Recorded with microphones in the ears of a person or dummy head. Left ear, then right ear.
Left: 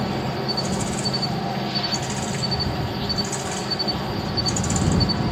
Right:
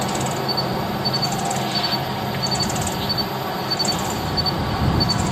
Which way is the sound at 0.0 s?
20° right (ahead or behind).